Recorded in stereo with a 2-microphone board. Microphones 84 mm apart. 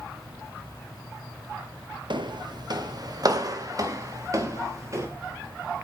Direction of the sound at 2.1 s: 65° right (ahead or behind).